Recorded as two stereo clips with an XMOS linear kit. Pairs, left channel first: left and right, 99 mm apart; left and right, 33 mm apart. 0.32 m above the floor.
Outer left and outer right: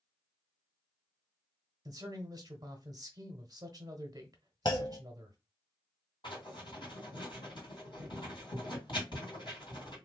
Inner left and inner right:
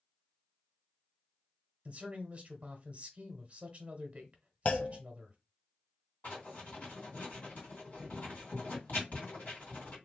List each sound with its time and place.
1.9 s a man speaking: 40° right (ahead or behind), 1.1 m
4.7 s a clunk: 45° left (ahead or behind), 0.6 m
6.2 s writing: 50° left (ahead or behind), 2.5 m